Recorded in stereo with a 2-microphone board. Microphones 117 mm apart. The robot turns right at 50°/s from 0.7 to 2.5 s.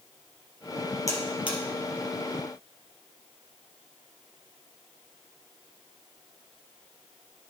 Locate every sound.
1.1 s a buzzer: 30° left (ahead or behind), 3 m; by 1.6 s 55° left (ahead or behind), 3 m